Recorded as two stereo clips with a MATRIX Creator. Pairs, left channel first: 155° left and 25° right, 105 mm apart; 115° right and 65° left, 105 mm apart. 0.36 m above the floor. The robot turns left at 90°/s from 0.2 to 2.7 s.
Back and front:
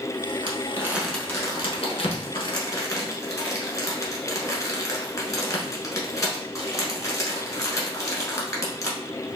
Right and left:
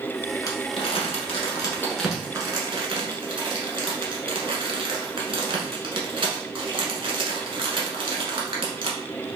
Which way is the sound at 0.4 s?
55° right.